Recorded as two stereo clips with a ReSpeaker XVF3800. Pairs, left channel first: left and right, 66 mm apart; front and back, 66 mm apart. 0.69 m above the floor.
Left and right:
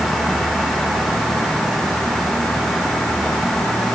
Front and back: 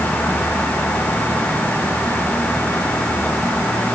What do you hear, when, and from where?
Only background noise.